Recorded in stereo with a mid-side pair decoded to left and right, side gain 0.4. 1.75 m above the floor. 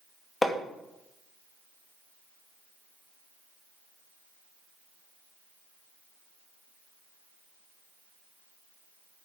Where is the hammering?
20° left, 2 m.